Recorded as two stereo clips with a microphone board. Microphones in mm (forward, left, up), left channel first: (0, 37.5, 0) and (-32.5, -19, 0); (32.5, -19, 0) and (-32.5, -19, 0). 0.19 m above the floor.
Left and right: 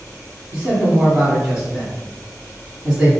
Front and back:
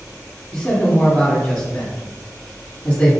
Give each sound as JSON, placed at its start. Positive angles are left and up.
{"t": 0.5, "sound": "a man speaking", "azimuth_deg": -55, "distance_m": 1.2}